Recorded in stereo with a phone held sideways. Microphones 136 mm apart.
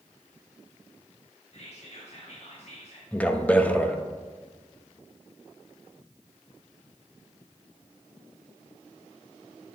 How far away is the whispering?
About 1.5 m.